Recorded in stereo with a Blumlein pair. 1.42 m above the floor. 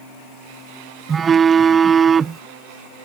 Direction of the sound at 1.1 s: 20° right.